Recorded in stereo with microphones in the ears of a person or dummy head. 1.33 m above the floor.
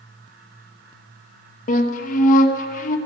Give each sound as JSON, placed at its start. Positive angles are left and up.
{"t": 1.7, "sound": "a flute", "side_deg": 45, "distance_m": 1.1}